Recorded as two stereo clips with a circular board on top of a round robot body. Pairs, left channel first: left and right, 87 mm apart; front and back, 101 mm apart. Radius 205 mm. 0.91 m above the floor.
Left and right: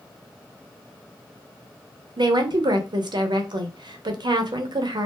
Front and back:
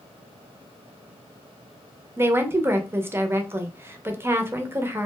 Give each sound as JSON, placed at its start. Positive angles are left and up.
{"t": 2.2, "sound": "a woman speaking", "azimuth_deg": -115, "distance_m": 0.7}